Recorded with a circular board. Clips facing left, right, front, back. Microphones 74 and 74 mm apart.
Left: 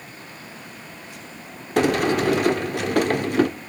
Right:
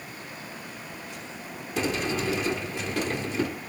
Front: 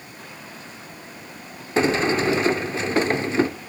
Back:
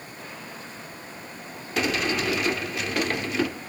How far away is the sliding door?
About 1.0 m.